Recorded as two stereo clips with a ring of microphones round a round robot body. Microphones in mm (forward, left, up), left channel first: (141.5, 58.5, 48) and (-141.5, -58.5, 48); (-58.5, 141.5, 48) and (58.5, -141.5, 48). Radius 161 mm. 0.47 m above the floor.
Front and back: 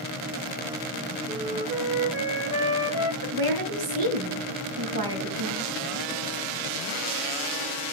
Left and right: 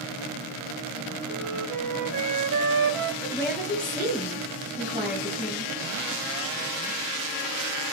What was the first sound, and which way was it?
A flute, 80° right.